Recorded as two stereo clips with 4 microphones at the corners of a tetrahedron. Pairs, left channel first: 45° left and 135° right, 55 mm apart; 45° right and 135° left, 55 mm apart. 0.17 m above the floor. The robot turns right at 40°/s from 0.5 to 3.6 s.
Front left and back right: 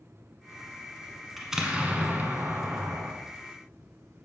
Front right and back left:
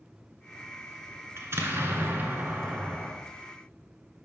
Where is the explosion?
140° left, 1.0 m; by 3.1 s 150° right, 1.0 m.